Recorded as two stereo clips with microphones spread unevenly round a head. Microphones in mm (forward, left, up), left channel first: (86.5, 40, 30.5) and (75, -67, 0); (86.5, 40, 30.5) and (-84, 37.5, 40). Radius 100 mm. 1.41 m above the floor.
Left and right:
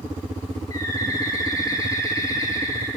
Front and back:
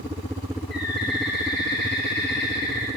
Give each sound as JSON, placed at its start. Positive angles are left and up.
{"t": 0.7, "sound": "a bird", "azimuth_deg": 25, "distance_m": 8.0}